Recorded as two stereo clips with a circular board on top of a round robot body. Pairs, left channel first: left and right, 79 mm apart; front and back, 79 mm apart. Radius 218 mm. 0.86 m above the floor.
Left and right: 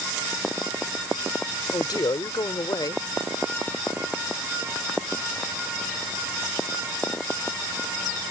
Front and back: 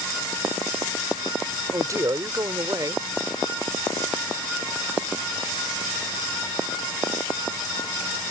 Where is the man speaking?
130° left.